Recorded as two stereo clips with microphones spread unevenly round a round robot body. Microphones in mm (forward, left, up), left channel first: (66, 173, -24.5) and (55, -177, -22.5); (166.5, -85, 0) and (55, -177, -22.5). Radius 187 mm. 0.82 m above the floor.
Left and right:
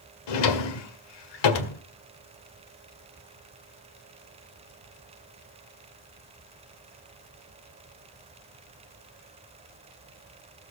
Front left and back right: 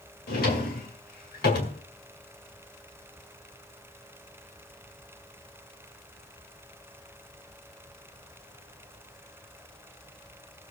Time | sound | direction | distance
0.3 | a drawer | 75° left | 1.9 m